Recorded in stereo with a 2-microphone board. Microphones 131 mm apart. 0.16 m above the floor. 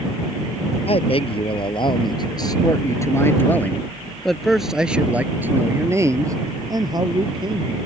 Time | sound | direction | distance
0.9 | a man speaking | 50° left (ahead or behind) | ?